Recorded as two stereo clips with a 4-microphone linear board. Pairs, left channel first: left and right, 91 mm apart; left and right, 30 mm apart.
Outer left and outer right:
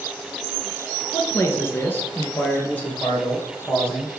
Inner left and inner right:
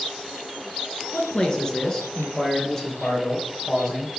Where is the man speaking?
30° left (ahead or behind), 1.3 m; by 4.2 s 15° left (ahead or behind), 4 m.